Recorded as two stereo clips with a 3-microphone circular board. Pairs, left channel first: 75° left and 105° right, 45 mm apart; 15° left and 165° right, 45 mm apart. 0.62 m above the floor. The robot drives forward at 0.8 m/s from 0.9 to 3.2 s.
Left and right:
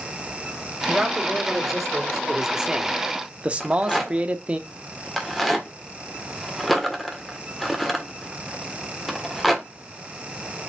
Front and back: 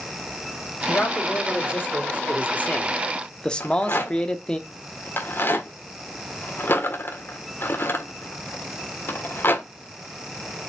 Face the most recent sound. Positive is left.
turn(degrees=-15)